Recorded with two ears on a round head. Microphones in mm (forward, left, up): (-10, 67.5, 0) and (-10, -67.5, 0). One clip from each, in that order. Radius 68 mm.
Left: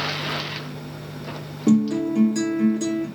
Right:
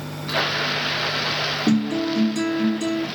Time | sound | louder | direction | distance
1.7 | a guitar | even | 5° left (ahead or behind) | 1.7 m